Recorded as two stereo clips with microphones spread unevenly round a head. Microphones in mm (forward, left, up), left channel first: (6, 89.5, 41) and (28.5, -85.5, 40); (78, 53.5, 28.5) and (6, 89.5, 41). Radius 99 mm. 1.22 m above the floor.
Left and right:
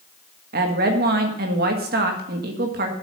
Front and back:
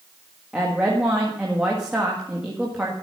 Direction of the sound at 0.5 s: 125° right.